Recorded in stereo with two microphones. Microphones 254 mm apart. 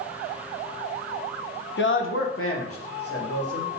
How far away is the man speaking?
About 0.5 m.